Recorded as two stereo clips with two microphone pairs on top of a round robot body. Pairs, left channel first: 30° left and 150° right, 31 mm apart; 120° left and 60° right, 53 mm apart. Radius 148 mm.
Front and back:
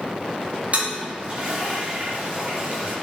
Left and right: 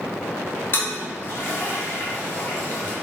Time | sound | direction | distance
0.7 | a toilet flushing | 165° left | 1.4 m